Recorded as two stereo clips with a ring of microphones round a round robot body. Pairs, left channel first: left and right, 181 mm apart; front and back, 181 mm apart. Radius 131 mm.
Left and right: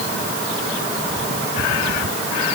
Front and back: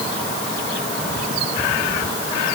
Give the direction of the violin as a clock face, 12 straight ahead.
No violin in this recording.